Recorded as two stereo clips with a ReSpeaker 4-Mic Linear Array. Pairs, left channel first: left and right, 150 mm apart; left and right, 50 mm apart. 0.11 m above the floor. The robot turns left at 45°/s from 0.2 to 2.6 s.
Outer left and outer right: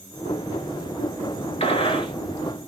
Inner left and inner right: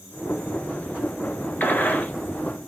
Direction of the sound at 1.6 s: 40° left (ahead or behind).